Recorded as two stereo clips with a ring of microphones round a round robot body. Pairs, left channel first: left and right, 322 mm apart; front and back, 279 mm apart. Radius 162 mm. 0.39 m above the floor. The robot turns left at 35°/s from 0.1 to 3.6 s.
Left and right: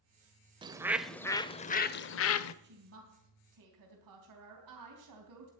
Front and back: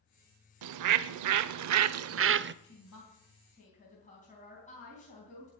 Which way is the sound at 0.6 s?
165° right.